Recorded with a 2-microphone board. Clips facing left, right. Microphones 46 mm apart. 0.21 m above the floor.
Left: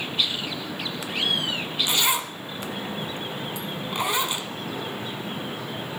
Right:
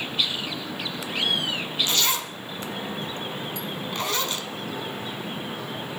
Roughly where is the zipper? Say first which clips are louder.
Left 4 dB; centre.